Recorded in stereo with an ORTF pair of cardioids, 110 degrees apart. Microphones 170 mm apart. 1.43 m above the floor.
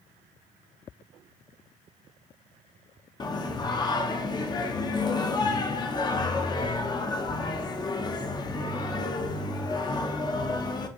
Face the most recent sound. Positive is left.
turn(degrees=25)